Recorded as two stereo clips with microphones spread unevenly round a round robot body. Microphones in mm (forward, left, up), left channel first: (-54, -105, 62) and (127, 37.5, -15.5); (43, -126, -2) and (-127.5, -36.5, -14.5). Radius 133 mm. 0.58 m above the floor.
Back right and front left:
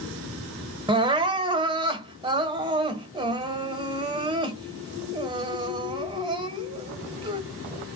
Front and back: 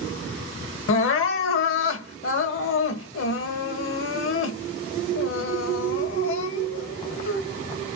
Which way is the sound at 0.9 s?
35° right.